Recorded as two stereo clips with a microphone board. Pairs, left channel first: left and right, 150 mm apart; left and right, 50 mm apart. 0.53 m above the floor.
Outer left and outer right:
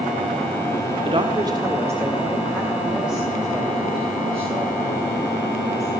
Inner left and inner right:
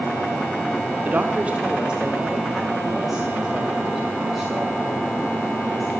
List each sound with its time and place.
1.1 s a woman speaking: 35° right (ahead or behind), 1.6 m; by 5.9 s 5° left (ahead or behind), 7.5 m